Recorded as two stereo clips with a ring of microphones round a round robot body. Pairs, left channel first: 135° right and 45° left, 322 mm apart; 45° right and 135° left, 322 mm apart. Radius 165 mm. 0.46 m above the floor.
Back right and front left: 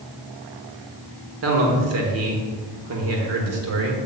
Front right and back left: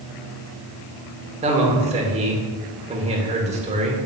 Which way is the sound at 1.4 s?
70° left.